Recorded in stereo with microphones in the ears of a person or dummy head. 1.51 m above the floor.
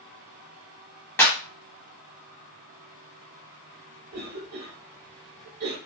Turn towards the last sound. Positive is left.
turn(degrees=-50)  # may be behind; listen again after turning